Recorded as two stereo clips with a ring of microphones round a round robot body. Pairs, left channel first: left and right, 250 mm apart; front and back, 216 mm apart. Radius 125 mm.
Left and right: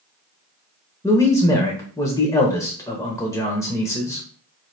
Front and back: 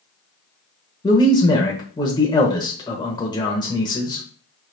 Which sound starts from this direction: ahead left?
A man speaking, at 1.0 s.